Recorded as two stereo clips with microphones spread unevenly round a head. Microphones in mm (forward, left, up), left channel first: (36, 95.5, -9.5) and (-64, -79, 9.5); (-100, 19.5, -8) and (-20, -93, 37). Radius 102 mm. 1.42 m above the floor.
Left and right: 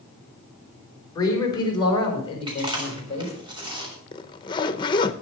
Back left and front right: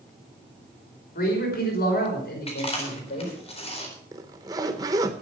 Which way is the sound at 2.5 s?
175° left.